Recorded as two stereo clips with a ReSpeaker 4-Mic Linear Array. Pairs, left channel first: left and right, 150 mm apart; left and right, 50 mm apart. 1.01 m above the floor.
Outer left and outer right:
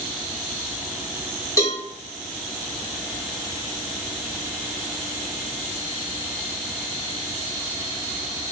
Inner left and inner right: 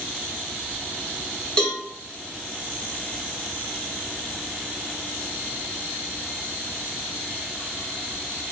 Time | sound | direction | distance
1.6 | a cowbell | 20° left (ahead or behind) | 1.3 m